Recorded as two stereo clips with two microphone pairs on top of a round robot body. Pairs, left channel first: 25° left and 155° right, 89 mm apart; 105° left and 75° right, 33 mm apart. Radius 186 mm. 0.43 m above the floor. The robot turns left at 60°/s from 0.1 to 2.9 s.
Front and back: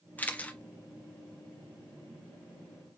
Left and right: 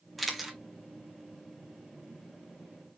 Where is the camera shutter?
25° left, 1.3 m; by 0.6 s straight ahead, 1.3 m.